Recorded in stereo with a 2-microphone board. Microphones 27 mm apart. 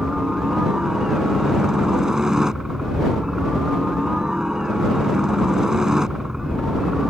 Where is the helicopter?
20° right (ahead or behind).